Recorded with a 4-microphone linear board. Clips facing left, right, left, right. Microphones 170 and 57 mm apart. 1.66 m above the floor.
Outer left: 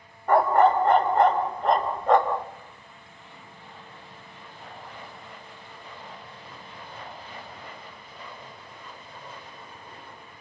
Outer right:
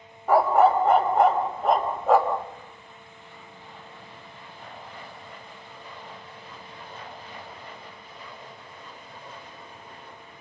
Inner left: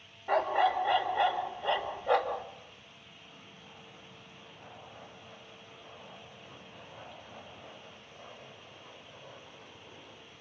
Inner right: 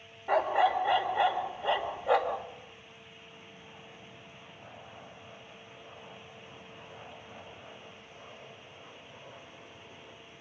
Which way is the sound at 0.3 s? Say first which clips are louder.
Outer right 1 dB, inner right 1 dB; 5° right (ahead or behind).